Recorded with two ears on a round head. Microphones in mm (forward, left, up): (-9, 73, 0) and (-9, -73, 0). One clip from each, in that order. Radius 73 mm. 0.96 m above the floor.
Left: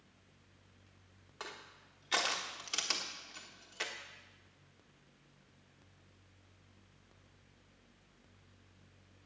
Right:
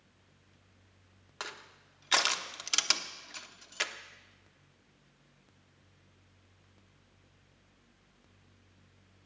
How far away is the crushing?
About 1.0 m.